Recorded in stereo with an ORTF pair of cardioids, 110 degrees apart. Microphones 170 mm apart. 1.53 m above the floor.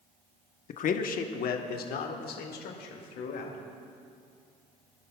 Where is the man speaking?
50° left, 1.0 m; by 3.6 s 70° left, 2.5 m.